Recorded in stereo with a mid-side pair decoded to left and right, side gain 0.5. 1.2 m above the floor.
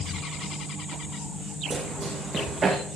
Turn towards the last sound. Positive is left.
turn(degrees=-35)